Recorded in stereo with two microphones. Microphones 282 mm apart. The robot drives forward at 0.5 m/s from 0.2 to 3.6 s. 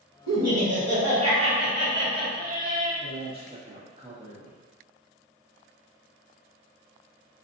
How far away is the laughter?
About 0.9 m.